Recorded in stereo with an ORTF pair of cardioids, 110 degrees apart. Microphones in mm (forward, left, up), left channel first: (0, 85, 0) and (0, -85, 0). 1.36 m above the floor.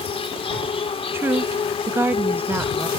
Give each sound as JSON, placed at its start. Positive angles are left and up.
{"t": 0.0, "sound": "an insect", "azimuth_deg": 35}
{"t": 1.1, "sound": "a woman speaking", "azimuth_deg": -15}